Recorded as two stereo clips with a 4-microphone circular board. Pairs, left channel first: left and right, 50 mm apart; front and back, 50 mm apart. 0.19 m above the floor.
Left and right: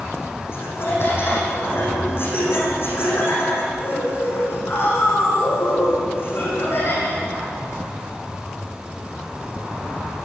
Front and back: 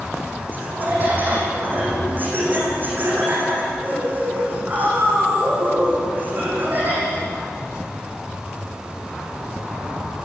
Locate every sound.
0.5 s laughter: 130° left, 10 m